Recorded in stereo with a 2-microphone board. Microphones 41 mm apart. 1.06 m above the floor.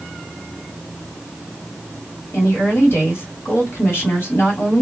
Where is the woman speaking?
65° left (ahead or behind), 1.8 m.